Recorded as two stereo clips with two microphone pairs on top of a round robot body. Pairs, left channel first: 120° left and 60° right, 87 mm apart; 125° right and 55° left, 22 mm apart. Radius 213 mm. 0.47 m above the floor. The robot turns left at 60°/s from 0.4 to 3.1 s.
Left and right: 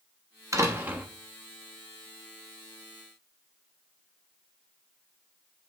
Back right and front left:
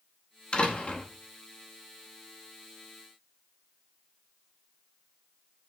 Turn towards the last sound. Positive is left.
turn(degrees=110)